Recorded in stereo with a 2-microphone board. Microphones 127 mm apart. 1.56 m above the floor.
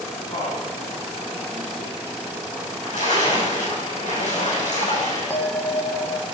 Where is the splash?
85° left, 6.5 m.